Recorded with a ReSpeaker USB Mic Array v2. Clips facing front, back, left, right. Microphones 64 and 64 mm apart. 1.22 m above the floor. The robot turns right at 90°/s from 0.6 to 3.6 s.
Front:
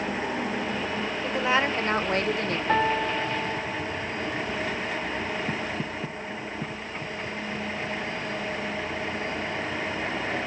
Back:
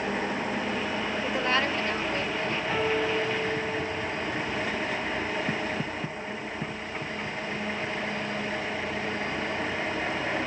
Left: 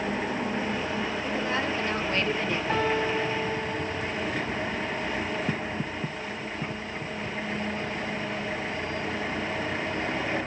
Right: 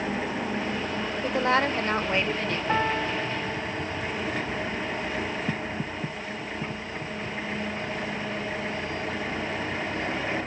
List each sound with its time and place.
1.2 s a woman speaking: 100° right, 0.8 m; by 2.6 s 20° left, 0.8 m
2.7 s a piano: 30° right, 1.7 m; by 4.1 s 50° left, 1.7 m